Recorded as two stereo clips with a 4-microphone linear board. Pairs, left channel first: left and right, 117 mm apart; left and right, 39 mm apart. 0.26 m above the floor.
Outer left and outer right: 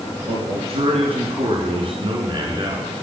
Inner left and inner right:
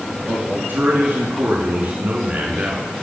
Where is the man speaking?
60° right (ahead or behind), 3.5 m; by 2.9 s 40° right (ahead or behind), 3 m.